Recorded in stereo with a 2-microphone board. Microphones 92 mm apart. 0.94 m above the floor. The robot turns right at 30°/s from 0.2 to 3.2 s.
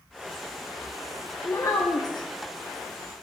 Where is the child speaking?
25° left (ahead or behind), 0.6 m; by 2.3 s 50° left (ahead or behind), 0.6 m.